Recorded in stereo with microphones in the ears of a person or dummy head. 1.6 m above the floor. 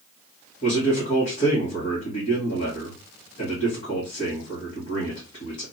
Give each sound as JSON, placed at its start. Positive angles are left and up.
{"t": 0.6, "sound": "a man speaking", "side_deg": 40, "distance_m": 1.6}